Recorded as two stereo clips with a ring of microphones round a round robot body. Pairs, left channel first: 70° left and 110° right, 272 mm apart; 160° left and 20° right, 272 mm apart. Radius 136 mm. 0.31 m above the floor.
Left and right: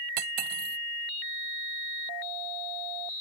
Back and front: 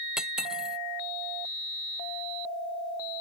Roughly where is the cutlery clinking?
Right.